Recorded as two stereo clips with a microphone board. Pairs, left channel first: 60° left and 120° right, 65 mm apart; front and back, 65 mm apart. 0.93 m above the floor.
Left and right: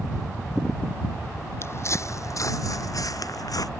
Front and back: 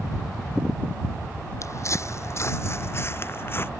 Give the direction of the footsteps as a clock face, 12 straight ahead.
11 o'clock.